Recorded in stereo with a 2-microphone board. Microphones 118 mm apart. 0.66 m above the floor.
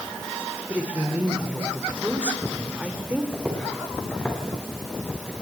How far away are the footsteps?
About 4.5 m.